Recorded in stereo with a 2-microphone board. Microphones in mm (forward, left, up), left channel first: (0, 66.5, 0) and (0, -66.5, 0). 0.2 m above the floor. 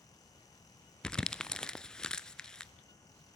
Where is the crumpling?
5° left (ahead or behind), 0.6 m.